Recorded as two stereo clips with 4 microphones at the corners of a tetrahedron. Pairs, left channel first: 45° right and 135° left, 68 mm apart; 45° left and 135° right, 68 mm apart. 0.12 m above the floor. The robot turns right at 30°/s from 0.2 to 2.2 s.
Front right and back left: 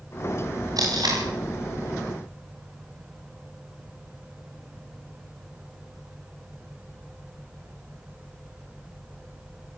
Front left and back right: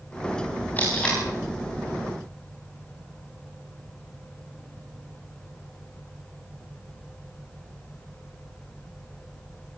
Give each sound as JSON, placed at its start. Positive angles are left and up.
{"t": 0.8, "sound": "tape being pulled", "azimuth_deg": 110, "distance_m": 8.5}